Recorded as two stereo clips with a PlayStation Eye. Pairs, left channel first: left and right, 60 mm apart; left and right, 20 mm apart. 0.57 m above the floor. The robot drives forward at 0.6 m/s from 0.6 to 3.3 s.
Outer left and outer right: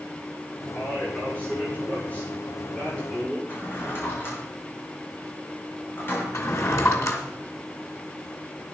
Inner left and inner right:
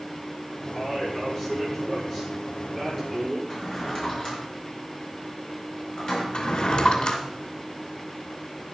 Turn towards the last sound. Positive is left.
turn(degrees=60)  # may be behind; listen again after turning